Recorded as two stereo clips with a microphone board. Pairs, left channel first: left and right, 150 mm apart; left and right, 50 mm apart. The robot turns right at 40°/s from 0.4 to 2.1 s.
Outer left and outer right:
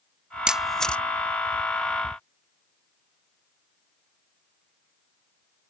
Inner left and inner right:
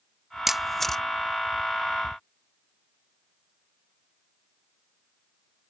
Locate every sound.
0.5 s a camera shutter: 5° right (ahead or behind); by 1.0 s 10° left (ahead or behind)